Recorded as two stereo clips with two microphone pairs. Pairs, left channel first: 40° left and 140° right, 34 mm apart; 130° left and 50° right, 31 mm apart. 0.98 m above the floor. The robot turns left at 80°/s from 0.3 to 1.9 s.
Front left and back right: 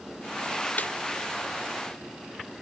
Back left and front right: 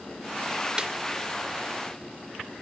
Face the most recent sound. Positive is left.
turn(degrees=-85)